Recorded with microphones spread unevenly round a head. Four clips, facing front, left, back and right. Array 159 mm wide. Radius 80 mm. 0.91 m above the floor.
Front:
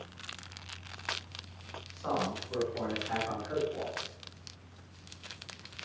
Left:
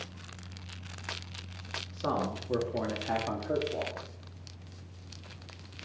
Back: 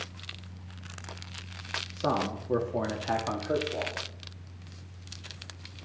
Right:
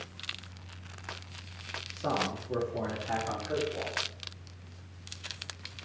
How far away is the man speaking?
About 2.5 m.